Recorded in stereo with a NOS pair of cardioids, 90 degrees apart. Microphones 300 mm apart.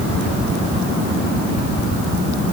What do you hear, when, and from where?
Only background noise.